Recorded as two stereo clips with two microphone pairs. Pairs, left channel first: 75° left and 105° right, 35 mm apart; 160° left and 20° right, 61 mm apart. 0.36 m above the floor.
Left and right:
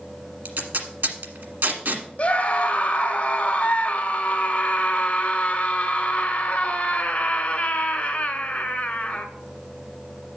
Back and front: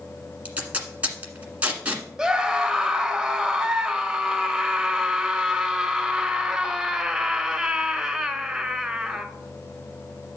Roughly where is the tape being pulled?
Right.